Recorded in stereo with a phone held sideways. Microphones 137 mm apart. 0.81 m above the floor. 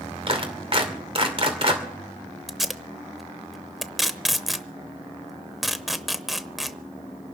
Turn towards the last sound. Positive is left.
turn(degrees=0)  # may be behind; listen again after turning